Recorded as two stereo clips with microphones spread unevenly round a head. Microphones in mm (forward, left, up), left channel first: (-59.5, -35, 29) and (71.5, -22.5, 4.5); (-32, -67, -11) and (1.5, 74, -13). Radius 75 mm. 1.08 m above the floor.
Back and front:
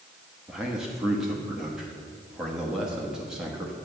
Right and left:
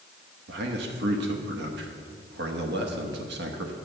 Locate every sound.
0.5 s a man speaking: 90° left, 1.1 m